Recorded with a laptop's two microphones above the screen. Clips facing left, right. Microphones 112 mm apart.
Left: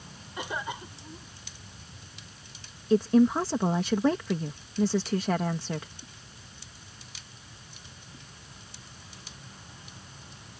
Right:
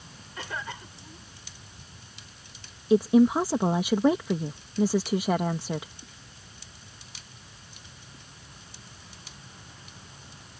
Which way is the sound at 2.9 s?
15° right (ahead or behind).